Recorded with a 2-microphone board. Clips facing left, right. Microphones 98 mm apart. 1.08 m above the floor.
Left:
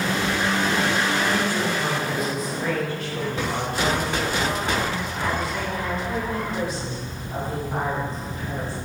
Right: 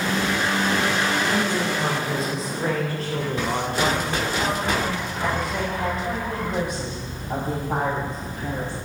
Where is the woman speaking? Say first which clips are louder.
Even; 20° right (ahead or behind), 3 m; by 8.7 s 65° right (ahead or behind), 9 m.